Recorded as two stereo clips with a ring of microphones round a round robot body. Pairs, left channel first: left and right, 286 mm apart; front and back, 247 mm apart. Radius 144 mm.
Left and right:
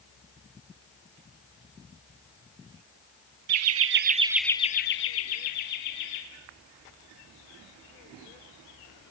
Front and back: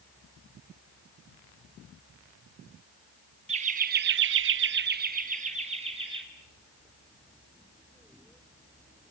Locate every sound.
3.5 s laughter: 115° right, 1.3 m; by 6.2 s 110° left, 2.5 m